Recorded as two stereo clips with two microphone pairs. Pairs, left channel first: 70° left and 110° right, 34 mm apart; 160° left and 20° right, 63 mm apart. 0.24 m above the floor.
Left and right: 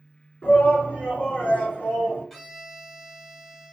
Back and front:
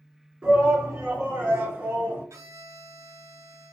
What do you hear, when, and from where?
0.4 s a shout: 45° left, 2.5 m; by 2.2 s 35° left, 1.7 m
2.3 s a violin: 10° right, 1.2 m